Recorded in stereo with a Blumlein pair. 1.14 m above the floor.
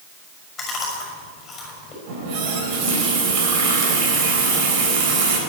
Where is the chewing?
20° left, 6 m.